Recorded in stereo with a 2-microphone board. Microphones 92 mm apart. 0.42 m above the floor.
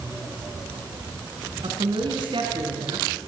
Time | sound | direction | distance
1.6 | a woman speaking | 75° right (ahead or behind) | 3.5 m